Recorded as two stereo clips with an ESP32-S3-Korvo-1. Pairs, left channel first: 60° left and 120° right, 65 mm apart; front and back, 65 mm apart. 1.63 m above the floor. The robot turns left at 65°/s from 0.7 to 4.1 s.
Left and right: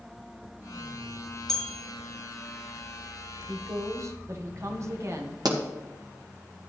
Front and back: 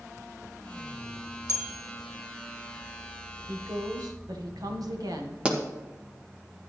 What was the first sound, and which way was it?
A bell, 20° right.